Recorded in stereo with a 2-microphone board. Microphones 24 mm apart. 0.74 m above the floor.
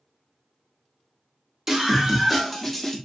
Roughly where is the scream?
Right.